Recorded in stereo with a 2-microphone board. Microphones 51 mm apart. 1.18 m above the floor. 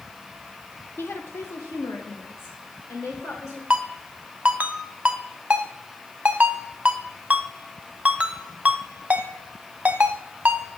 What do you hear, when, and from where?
1.0 s a woman speaking: 45° left (ahead or behind), 0.8 m; by 3.6 s 70° left (ahead or behind), 4 m
3.7 s a ringtone: 30° right (ahead or behind), 0.8 m